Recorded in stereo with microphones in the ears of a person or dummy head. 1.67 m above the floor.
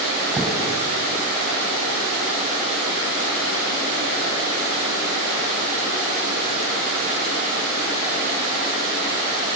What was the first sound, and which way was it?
A thud, centre (ahead or behind).